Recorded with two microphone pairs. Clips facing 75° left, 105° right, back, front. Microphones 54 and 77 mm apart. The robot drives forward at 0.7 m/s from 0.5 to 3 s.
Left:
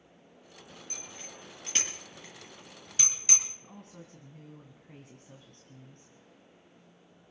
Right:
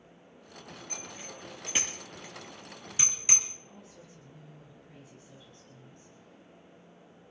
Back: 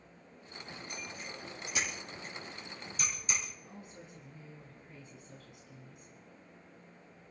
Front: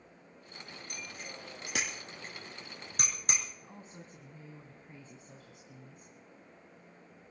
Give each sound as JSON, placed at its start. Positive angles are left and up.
{"t": 0.9, "sound": "a bicycle bell", "azimuth_deg": -20, "distance_m": 5.0}
{"t": 3.6, "sound": "a woman speaking", "azimuth_deg": 50, "distance_m": 2.5}